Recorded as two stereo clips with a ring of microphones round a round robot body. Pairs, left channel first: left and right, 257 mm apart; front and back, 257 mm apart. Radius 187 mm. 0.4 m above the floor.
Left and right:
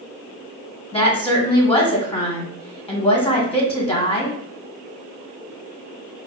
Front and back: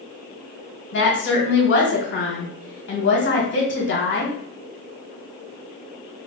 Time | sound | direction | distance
0.9 | a woman speaking | 25° left | 1.6 m